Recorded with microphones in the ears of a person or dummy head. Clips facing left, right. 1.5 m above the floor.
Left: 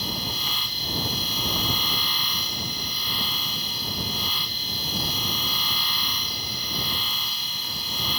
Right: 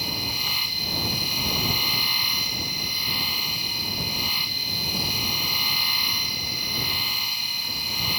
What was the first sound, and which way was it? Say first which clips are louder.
A machine running: left 1 dB; 5° right (ahead or behind).